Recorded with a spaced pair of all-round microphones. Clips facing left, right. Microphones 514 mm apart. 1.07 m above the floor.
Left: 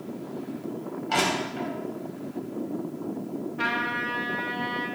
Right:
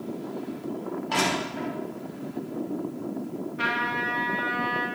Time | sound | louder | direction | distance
1.1 | crushing | left 2 dB | 5° left (ahead or behind) | 3 m
3.6 | a trumpet | even | 20° left (ahead or behind) | 2 m